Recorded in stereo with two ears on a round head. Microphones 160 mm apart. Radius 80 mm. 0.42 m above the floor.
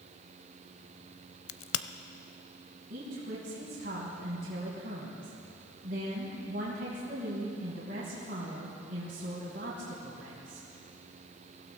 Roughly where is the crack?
Left.